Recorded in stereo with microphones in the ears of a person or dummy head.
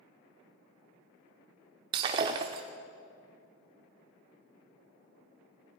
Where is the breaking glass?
25° right (ahead or behind), 0.7 m.